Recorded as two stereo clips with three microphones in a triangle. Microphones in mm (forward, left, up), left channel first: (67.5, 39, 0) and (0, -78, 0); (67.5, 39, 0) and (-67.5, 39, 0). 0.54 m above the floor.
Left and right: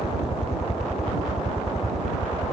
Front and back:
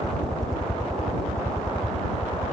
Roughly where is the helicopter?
Left.